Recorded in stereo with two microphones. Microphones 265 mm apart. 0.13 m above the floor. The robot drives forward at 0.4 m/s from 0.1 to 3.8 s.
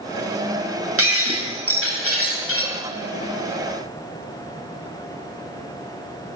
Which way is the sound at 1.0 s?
60° right (ahead or behind).